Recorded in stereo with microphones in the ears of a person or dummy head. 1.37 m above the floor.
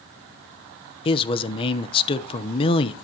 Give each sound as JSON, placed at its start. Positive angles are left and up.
{"t": 1.1, "sound": "a man speaking", "side_deg": 30, "distance_m": 0.9}